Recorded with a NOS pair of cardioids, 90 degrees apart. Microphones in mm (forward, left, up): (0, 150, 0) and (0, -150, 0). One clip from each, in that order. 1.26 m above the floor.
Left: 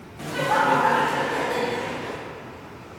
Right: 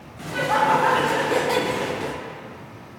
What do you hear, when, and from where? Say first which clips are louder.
0.2 s laughter: right 1 dB; 10° left, 0.8 m; by 2.2 s 75° right, 0.7 m